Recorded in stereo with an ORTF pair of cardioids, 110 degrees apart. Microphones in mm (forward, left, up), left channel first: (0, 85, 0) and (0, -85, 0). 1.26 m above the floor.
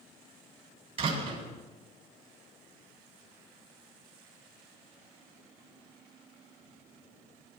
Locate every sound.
1.0 s a door slam: 35° right, 7 m